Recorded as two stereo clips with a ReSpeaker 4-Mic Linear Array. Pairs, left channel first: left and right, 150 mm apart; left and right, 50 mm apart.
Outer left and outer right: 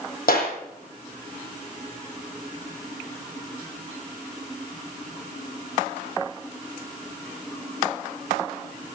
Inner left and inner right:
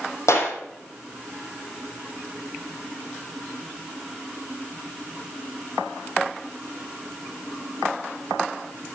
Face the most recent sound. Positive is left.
turn(degrees=75)  # may be behind; listen again after turning